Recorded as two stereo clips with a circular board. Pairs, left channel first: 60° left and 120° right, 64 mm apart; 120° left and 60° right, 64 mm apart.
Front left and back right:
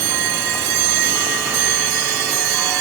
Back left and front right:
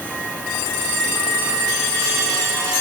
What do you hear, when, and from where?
Only background noise.